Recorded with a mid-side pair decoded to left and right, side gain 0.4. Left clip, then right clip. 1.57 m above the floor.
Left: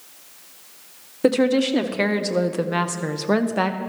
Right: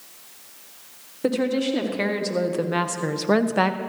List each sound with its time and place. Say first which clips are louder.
1.2 s a woman speaking: left 5 dB; 50° left, 1.3 m; by 3.8 s 20° right, 1.0 m